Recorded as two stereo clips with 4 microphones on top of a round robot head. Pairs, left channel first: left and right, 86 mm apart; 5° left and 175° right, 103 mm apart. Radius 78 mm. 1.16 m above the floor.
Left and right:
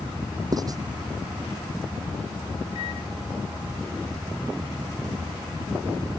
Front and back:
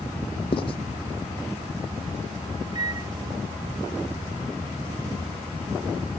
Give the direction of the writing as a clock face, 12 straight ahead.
2 o'clock.